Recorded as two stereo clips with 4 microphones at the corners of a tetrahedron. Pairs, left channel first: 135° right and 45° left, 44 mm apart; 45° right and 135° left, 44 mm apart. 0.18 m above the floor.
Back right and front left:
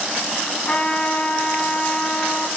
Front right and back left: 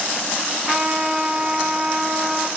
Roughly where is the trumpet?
Behind.